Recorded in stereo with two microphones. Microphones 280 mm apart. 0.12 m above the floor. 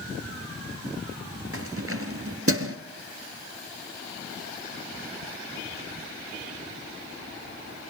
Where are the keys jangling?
55° right (ahead or behind), 1.8 m.